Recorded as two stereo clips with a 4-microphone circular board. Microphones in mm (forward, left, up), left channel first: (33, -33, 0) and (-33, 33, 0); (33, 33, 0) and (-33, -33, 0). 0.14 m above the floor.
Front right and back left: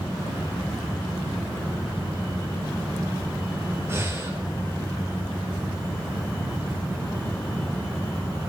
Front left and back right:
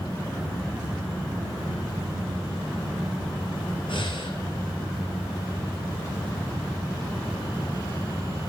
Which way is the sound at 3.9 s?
70° left.